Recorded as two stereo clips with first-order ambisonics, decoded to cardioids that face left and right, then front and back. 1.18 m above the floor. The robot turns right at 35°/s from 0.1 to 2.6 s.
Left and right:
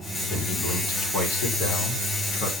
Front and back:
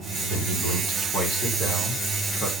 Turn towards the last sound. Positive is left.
turn(degrees=100)